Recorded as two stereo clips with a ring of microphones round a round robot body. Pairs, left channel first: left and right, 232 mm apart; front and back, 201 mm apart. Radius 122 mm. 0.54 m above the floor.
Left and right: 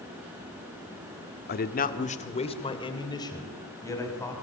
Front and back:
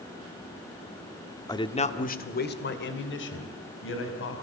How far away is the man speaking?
About 1.6 m.